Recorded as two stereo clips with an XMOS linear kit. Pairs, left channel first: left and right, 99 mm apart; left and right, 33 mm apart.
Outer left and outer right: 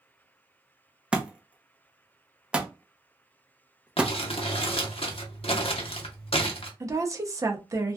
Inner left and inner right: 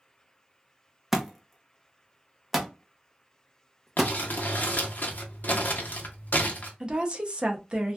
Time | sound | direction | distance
1.1 | a thud | 10° right (ahead or behind) | 0.6 m
4.0 | crumpling | 70° left (ahead or behind) | 0.7 m
6.8 | a woman speaking | 35° right (ahead or behind) | 0.6 m